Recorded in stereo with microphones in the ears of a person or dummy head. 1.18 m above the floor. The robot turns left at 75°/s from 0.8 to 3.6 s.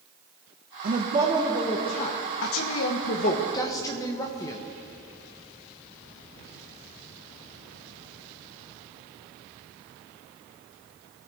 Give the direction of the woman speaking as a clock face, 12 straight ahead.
4 o'clock.